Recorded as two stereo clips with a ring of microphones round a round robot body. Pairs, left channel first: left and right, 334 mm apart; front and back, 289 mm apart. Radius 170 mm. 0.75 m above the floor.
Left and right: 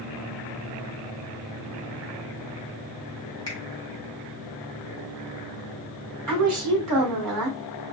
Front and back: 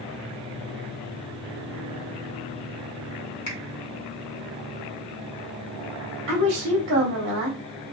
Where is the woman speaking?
130° right, 2 m.